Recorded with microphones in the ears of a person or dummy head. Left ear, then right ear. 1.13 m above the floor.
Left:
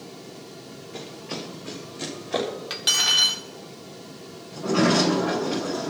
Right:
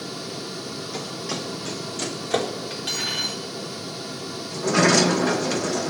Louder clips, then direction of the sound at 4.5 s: Right 3 dB; 85° right.